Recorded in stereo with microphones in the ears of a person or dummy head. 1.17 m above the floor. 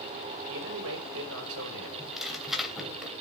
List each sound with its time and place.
0.5 s a man speaking: 75° right (ahead or behind), 6 m
2.0 s tearing paper: centre (ahead or behind), 3 m